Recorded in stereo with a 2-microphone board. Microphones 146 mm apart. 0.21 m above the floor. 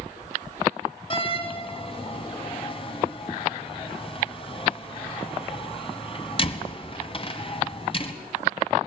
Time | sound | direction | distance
1.1 | a door slam | 35° left (ahead or behind) | 1.5 m